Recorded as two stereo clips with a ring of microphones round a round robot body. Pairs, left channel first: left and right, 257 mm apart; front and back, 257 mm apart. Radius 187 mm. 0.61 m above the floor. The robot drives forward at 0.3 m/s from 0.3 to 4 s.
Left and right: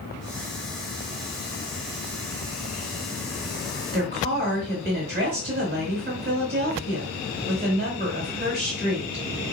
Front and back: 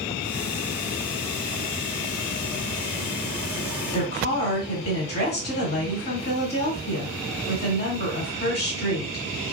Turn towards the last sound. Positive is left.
turn(degrees=-60)